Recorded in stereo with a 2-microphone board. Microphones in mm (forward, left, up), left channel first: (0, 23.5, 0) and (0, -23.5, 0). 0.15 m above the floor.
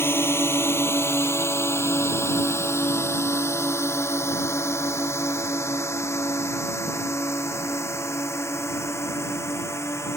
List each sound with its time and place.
0.0 s a drone: 60° left (ahead or behind); by 10.2 s 75° left (ahead or behind)